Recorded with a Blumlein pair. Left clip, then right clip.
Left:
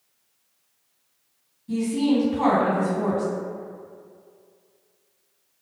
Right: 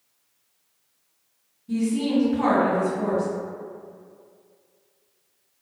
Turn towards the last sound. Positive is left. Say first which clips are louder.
# left 2 dB
turn(degrees=10)